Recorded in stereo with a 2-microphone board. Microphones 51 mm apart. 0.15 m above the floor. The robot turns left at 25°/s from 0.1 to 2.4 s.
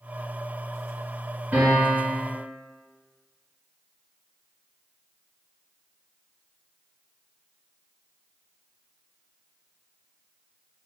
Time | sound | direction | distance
1.5 | a piano | 30° right (ahead or behind) | 1.6 m